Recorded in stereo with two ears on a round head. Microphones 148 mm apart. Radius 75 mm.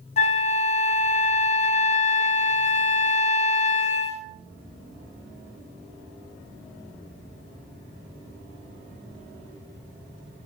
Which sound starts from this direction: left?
A flute, at 0.2 s.